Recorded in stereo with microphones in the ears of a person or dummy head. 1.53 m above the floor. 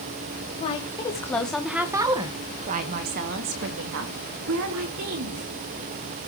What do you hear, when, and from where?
0.6 s a woman speaking: 35° left (ahead or behind), 2.0 m; by 5.4 s 75° right (ahead or behind), 4.5 m